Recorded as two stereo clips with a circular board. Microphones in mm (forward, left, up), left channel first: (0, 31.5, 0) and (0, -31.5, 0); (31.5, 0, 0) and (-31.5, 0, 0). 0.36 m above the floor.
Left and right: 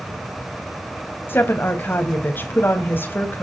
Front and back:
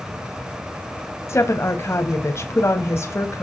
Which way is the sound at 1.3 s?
40° left.